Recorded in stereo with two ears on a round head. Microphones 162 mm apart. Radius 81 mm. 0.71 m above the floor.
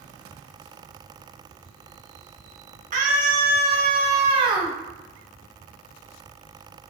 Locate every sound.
2.9 s a scream: 45° right (ahead or behind), 1.5 m; by 4.8 s 20° right (ahead or behind), 0.9 m